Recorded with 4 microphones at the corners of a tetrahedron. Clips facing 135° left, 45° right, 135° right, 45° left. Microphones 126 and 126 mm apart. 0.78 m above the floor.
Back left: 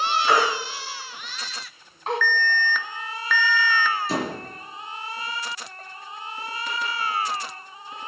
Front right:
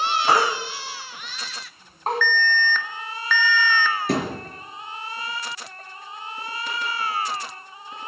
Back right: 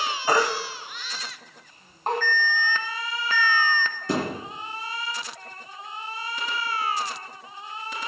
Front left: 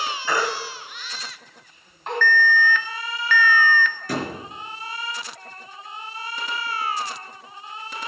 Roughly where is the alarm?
Behind right.